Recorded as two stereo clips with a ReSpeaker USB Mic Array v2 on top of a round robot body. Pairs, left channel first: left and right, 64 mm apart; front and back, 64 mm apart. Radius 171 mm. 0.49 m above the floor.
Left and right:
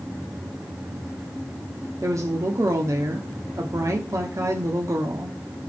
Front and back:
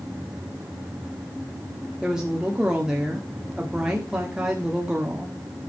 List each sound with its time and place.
2.0 s a woman speaking: 100° right, 1.7 m